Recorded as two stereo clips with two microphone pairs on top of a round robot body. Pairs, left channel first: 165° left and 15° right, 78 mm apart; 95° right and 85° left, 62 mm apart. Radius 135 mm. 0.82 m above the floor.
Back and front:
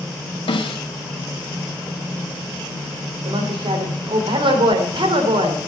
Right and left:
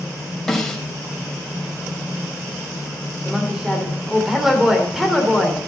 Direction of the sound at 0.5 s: Straight behind.